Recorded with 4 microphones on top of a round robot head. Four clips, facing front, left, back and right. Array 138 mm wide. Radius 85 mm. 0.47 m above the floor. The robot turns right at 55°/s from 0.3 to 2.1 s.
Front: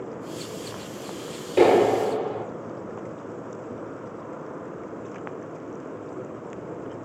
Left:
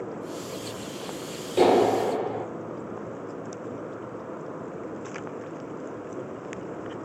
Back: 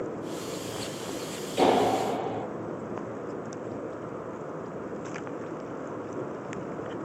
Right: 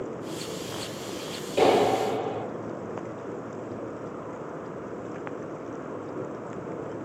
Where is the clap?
15° left, 7 m; by 2.5 s 45° left, 7 m.